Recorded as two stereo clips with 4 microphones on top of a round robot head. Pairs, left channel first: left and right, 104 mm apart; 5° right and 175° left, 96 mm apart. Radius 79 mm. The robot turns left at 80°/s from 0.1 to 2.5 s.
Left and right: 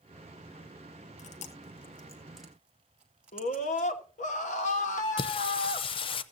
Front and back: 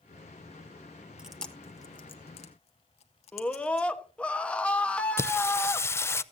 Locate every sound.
1.2 s chewing: 95° left, 1.5 m; by 3.9 s 10° right, 1.5 m
3.3 s a scream: 75° left, 1.3 m
5.2 s singing: 60° left, 0.5 m